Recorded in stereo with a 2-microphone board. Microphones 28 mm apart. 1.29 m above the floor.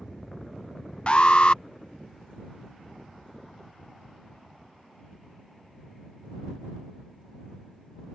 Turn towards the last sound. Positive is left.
turn(degrees=35)  # may be behind; listen again after turning